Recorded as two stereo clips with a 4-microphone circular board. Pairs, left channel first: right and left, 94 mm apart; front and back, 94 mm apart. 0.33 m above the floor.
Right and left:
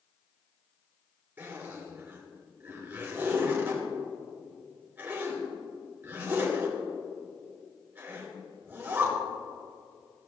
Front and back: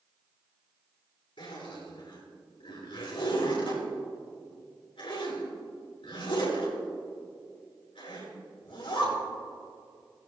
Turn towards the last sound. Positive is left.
turn(degrees=25)